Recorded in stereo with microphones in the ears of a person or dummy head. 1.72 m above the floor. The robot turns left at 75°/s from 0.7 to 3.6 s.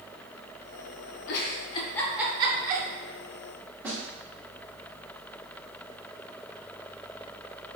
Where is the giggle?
65° left (ahead or behind), 0.5 m; by 2.9 s 55° right (ahead or behind), 0.5 m.